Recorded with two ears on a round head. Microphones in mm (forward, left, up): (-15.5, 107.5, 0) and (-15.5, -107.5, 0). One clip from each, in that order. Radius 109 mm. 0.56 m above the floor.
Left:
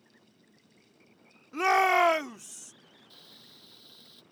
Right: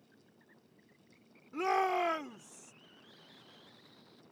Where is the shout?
35° left (ahead or behind); by 2.7 s 45° left (ahead or behind).